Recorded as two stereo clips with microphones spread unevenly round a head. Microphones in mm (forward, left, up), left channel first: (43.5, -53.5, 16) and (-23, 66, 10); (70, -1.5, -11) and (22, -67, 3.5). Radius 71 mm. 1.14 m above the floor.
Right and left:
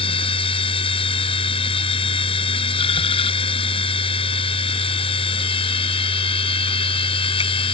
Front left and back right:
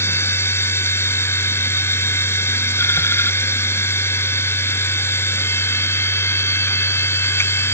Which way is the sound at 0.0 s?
10° right.